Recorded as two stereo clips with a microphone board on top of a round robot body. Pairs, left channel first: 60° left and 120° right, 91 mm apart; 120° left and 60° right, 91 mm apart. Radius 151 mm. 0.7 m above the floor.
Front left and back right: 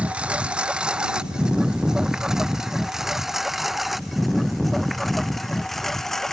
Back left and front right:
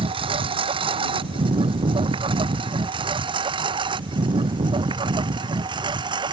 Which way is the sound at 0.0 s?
45° right.